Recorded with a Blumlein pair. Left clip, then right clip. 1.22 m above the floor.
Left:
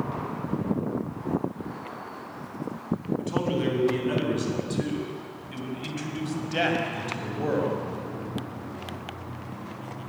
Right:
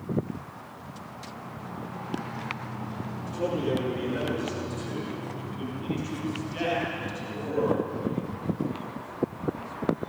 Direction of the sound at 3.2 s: 60° left.